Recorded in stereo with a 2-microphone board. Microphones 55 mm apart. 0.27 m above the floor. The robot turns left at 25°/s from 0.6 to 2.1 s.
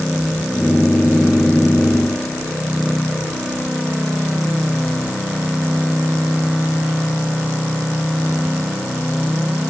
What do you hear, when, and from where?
Only background noise.